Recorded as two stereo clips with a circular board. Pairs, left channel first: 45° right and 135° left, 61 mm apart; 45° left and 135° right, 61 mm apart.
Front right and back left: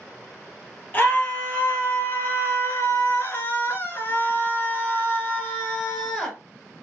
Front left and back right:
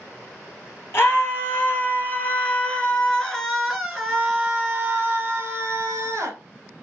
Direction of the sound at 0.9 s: 10° left.